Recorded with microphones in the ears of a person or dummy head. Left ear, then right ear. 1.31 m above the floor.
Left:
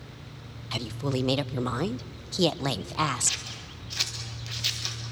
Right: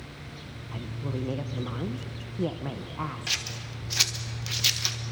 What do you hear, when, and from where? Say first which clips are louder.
0.7 s a woman speaking: left 7 dB; 80° left, 0.6 m
3.3 s scissors: right 1 dB; 15° right (ahead or behind), 1.3 m